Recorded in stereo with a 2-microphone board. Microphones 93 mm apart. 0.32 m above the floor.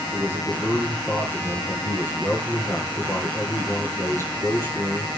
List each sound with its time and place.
0.1 s a man speaking: 20° right (ahead or behind), 5 m